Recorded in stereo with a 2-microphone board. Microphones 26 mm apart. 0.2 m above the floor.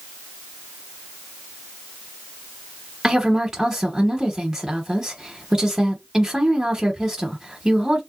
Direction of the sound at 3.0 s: 15° right (ahead or behind).